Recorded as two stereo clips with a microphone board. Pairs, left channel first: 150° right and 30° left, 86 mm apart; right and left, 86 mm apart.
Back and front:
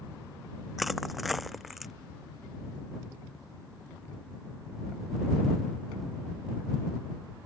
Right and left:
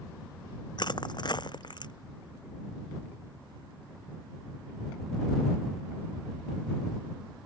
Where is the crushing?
60° right.